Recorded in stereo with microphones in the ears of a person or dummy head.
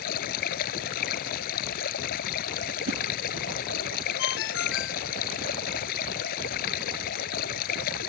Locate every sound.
0.0 s running water: 55° left (ahead or behind)
2.9 s a whoosh: 50° right (ahead or behind)
4.2 s a ringtone: 70° left (ahead or behind)